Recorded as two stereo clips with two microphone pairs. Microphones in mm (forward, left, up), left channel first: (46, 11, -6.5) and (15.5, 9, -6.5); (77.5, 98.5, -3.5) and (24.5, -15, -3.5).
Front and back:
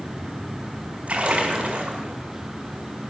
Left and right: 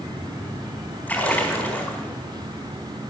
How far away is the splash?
About 4 m.